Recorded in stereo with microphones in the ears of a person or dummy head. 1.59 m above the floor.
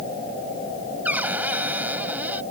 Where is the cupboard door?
5° right (ahead or behind).